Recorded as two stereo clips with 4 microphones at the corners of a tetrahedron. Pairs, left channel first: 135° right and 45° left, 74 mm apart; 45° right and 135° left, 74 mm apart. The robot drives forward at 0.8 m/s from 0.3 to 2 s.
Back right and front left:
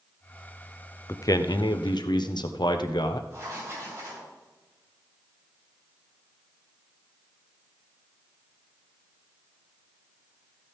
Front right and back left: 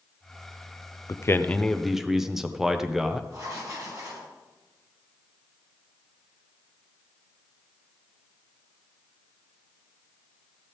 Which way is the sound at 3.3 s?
100° left.